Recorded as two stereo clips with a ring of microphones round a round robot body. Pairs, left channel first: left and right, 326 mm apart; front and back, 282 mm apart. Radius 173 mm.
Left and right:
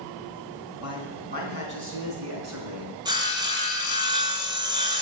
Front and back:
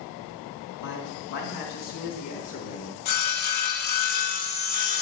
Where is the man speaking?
10° right, 3.5 m; by 2.9 s 55° right, 5 m.